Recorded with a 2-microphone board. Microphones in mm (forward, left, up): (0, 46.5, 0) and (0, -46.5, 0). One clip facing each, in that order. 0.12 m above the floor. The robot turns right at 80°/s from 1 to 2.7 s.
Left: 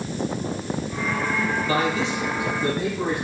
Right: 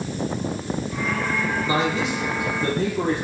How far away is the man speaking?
About 3 m.